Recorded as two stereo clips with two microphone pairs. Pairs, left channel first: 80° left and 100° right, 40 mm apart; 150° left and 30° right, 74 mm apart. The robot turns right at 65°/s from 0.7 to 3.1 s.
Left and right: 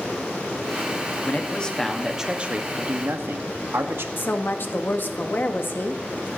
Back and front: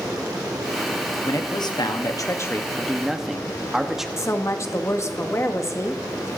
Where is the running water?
Straight ahead, 5.5 m; by 6.4 s 155° left, 5.5 m.